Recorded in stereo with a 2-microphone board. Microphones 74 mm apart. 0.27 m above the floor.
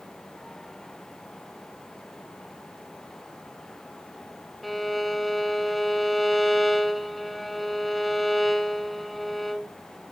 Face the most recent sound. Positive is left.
turn(degrees=0)  # may be behind; listen again after turning